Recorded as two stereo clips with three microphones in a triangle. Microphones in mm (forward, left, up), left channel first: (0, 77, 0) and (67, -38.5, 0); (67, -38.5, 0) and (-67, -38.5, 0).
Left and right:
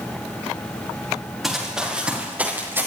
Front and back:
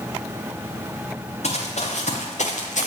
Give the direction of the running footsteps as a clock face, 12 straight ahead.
11 o'clock.